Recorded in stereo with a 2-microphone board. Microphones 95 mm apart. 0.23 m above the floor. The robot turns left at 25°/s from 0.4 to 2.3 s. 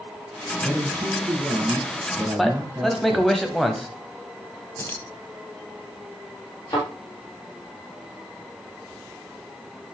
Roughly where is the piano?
No piano in this recording.